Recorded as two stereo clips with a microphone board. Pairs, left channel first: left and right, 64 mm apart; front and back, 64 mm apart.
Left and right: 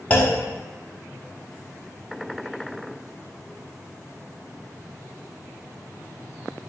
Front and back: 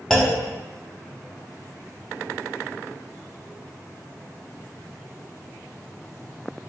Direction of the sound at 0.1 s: 75° left.